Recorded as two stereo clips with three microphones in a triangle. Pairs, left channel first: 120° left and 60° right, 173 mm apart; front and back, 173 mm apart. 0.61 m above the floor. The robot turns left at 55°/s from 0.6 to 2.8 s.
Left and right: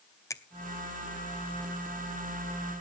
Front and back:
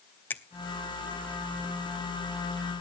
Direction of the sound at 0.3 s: 70° left.